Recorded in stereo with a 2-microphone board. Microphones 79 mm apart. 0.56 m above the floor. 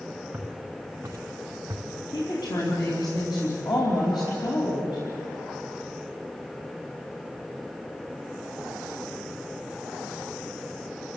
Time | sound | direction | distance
0.3 | footsteps | 10° right (ahead or behind) | 3 m
2.1 | a woman speaking | 55° left (ahead or behind) | 4.5 m